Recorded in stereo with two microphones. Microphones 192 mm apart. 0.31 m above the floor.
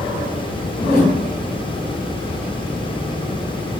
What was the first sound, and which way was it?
A whoosh, 35° right (ahead or behind).